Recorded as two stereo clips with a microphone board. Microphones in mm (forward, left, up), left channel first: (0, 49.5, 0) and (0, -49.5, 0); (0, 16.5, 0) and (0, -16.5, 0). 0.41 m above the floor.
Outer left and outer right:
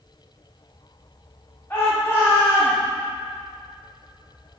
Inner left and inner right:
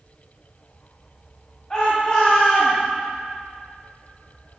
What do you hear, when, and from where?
1.7 s a shout: 25° left (ahead or behind), 2 m